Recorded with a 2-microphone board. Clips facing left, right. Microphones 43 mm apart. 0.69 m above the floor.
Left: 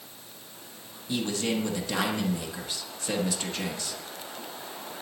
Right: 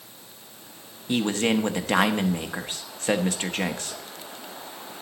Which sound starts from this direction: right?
A man speaking, at 1.1 s.